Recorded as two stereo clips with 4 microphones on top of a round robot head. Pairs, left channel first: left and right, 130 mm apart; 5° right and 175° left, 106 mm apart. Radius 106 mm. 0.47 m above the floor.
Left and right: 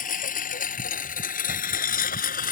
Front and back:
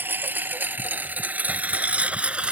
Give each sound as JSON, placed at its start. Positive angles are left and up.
{"t": 0.0, "sound": "a lawn mower", "azimuth_deg": 105}